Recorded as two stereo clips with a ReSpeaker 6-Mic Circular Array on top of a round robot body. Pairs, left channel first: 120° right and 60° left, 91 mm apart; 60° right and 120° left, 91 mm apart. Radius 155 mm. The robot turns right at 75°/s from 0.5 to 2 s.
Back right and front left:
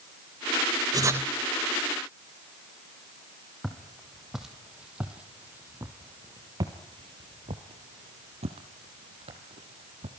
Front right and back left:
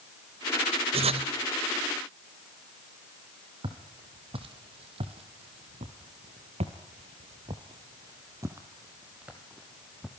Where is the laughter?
I don't hear laughter.